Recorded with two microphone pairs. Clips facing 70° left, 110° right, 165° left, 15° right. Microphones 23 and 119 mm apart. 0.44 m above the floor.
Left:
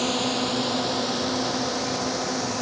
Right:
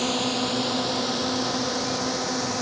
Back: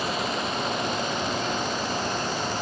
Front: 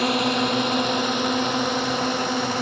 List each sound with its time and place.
0.0 s a drone: 20° right; by 2.6 s 30° right